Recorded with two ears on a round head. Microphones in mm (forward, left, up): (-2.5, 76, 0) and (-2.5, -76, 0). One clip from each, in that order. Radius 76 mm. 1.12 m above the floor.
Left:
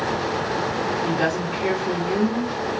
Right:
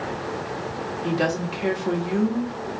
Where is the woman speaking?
60° right (ahead or behind), 1.3 m.